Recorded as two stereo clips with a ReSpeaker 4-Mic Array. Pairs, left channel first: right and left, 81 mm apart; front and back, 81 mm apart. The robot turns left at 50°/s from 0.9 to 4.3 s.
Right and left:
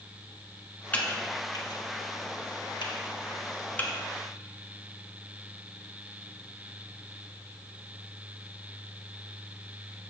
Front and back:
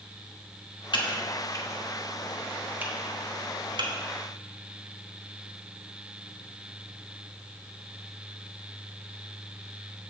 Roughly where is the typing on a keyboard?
Ahead.